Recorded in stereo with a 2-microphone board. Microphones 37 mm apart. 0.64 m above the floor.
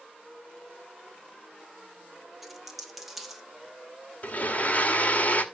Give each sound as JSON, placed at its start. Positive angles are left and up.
{"t": 2.4, "sound": "a dropped coin", "side_deg": -5, "distance_m": 2.0}
{"t": 4.2, "sound": "a blender", "side_deg": 40, "distance_m": 2.0}